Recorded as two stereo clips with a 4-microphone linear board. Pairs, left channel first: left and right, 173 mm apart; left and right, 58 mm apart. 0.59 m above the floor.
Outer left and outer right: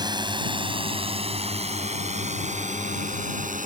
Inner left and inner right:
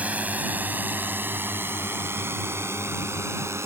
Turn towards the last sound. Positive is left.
turn(degrees=-45)  # may be behind; listen again after turning